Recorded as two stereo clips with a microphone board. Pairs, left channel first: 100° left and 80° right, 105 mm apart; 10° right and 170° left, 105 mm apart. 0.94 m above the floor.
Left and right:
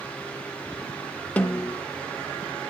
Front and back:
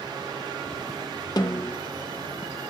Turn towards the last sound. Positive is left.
turn(degrees=25)